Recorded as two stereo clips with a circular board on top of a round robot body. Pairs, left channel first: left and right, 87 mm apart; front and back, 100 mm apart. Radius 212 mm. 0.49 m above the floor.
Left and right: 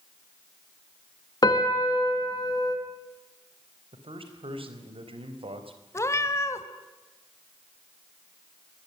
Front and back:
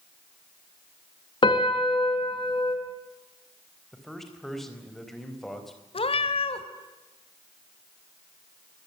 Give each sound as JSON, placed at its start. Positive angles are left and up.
{"t": 1.4, "sound": "a piano", "azimuth_deg": 45, "distance_m": 3.0}
{"t": 3.9, "sound": "a man speaking", "azimuth_deg": -90, "distance_m": 4.0}
{"t": 5.9, "sound": "a cat meowing", "azimuth_deg": 30, "distance_m": 1.6}